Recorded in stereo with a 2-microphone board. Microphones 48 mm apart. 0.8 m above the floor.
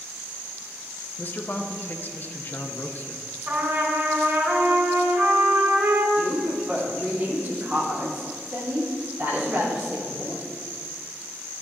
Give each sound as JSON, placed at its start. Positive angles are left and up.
{"t": 1.2, "sound": "a man speaking", "side_deg": 40, "distance_m": 0.7}
{"t": 3.5, "sound": "a trumpet", "side_deg": -45, "distance_m": 1.7}
{"t": 6.2, "sound": "a woman speaking", "side_deg": -45, "distance_m": 2.5}